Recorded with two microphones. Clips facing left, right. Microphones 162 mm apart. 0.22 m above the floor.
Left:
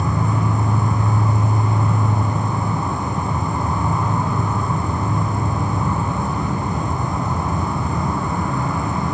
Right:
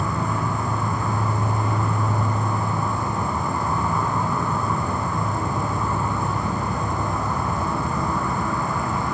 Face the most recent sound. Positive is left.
turn(degrees=20)  # may be behind; listen again after turning